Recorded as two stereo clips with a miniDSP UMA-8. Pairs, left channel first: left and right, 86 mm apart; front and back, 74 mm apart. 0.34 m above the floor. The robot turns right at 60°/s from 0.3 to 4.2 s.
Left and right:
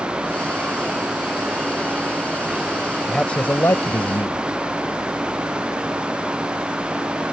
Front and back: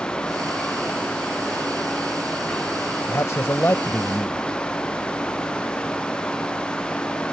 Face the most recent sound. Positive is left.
turn(degrees=75)